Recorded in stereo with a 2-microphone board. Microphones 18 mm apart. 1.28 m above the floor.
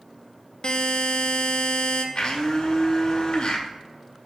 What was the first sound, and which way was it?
A buzzer, 60° left (ahead or behind).